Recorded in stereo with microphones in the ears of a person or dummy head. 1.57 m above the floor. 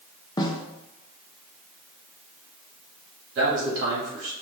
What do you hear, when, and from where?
0.4 s a snare drum: 20° left (ahead or behind), 0.6 m
3.4 s a man speaking: 80° right, 2.5 m